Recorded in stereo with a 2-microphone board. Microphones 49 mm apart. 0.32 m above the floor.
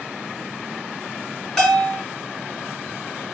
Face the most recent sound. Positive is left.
turn(degrees=15)  # may be behind; listen again after turning